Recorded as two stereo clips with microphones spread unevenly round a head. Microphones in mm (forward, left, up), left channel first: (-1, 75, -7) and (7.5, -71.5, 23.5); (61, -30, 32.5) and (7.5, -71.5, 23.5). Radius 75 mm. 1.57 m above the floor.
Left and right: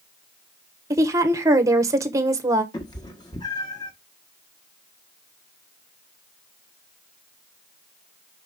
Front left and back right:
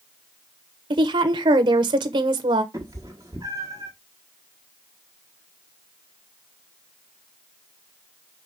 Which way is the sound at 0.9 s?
155° right.